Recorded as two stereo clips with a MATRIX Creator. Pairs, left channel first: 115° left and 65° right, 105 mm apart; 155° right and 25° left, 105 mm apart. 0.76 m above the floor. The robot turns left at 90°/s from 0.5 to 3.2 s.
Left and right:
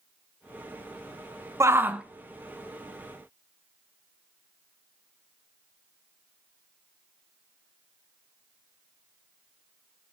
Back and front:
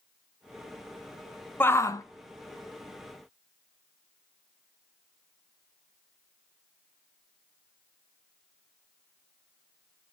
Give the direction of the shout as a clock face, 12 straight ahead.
3 o'clock.